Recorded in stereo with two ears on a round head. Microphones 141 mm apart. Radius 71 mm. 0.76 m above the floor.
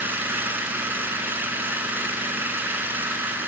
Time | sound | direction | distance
0.0 | an engine running | 15° right (ahead or behind) | 2 m